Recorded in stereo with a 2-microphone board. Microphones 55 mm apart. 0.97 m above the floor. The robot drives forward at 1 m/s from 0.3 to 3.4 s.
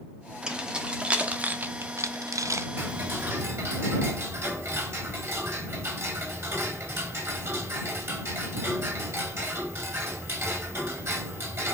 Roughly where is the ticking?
Right.